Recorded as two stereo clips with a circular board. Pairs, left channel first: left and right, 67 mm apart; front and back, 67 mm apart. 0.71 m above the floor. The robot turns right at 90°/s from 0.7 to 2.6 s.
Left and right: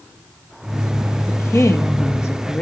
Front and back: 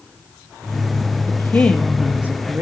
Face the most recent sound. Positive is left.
turn(degrees=150)